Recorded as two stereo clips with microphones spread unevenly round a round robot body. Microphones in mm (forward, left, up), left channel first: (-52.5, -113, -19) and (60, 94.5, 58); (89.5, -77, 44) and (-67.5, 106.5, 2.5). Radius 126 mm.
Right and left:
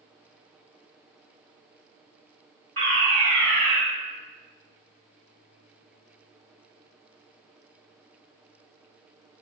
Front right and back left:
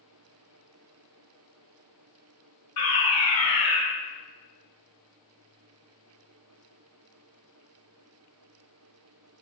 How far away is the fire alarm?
About 4 m.